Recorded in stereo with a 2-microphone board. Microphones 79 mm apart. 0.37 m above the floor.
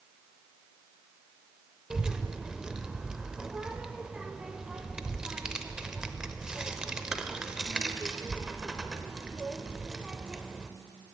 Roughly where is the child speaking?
Centre.